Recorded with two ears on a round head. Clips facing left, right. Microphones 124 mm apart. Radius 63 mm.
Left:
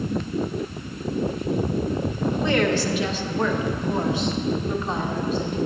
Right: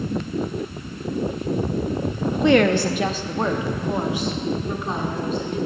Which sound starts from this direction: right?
A woman speaking, at 2.4 s.